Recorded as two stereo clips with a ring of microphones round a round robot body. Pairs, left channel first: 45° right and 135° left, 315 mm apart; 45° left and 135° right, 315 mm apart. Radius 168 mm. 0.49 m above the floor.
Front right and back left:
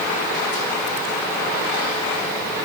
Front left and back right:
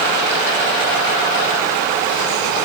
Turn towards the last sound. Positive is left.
No sound to turn to.